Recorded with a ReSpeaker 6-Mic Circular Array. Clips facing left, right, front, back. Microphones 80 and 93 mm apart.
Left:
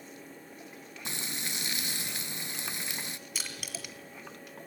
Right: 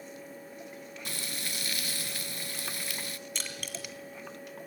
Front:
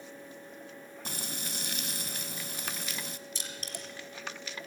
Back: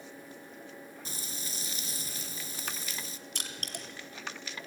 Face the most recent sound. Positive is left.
turn(degrees=170)